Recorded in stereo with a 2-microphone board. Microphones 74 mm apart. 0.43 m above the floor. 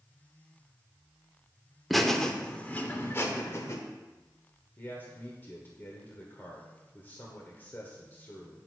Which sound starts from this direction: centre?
Laughter, at 1.9 s.